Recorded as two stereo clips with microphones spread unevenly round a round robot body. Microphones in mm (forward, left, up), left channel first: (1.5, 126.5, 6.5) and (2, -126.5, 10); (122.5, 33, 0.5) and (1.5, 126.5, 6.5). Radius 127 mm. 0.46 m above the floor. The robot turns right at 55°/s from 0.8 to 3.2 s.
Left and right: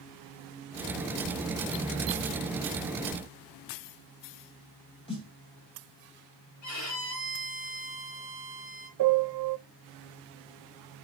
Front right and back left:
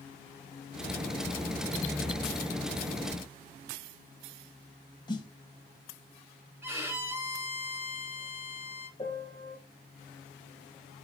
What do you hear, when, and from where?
5.1 s a snare drum: 20° left, 2 m
6.6 s a violin: 65° left, 4 m
9.0 s a piano: 110° right, 0.6 m